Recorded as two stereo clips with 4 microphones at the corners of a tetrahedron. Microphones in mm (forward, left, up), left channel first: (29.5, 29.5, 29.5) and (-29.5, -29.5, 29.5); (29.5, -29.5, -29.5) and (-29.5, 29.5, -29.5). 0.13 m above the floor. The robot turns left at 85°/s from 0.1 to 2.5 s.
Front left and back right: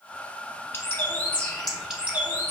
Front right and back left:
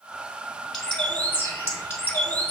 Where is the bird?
40° left, 1.0 m; by 2.5 s 110° right, 1.0 m.